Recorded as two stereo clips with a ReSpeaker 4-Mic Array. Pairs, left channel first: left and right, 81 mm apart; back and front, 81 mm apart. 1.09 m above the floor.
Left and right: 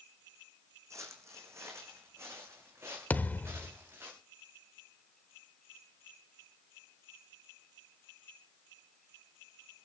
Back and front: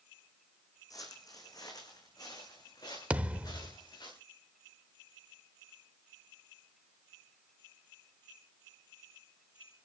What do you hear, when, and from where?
0.9 s footsteps: 140° right, 3.5 m; by 4.1 s 150° right, 6.5 m
3.1 s a thud: 50° left, 0.8 m